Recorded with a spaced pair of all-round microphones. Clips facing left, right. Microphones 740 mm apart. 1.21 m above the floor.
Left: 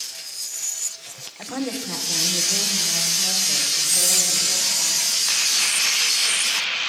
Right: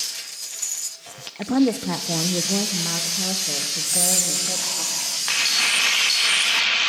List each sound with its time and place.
1.4 s a woman speaking: 60° right (ahead or behind), 0.9 m; by 4.8 s 80° right, 3 m
3.8 s whispering: 50° left (ahead or behind), 2.5 m